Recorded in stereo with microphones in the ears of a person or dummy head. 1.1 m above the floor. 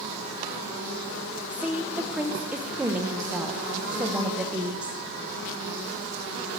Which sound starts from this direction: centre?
A woman speaking, at 1.5 s.